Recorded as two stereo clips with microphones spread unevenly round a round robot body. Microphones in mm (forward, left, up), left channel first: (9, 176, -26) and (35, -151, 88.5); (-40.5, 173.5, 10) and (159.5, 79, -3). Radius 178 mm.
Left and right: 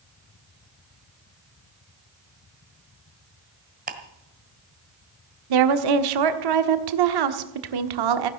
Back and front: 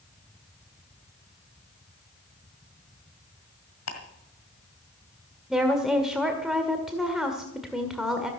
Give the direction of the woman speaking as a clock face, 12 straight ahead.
4 o'clock.